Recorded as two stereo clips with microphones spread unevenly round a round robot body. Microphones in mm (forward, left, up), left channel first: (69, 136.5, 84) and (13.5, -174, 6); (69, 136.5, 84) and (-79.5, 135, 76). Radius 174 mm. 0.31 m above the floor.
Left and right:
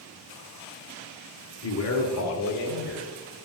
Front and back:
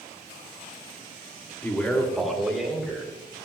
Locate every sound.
1.6 s a man speaking: 75° left, 1.7 m; by 3.5 s 100° left, 3.5 m